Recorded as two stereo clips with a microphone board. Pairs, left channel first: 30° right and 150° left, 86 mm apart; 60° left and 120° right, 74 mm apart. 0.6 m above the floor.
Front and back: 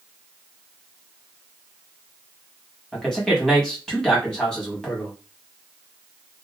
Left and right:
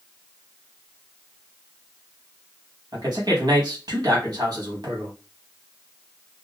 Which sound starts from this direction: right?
A man speaking, at 2.9 s.